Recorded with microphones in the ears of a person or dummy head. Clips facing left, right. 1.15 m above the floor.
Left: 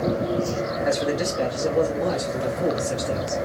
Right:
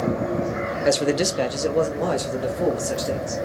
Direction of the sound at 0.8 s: 35° right (ahead or behind).